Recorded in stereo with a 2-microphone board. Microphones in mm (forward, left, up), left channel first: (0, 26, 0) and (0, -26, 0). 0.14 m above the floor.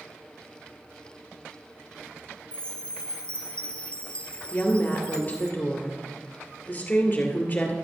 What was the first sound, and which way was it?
A chime, 20° left (ahead or behind).